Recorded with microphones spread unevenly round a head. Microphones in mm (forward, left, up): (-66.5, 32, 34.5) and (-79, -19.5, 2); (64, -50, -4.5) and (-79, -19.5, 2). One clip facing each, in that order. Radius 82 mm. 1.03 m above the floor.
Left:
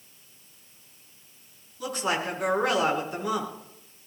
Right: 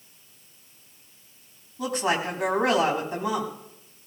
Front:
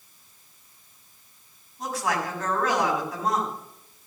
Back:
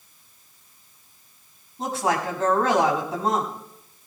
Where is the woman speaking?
130° right, 6.5 m.